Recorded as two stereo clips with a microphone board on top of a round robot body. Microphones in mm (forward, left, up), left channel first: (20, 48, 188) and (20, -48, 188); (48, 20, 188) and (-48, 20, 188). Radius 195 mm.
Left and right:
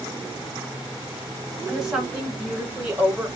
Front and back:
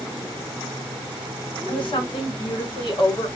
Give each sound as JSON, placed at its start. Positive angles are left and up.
{"t": 1.7, "sound": "a woman speaking", "azimuth_deg": -5, "distance_m": 2.5}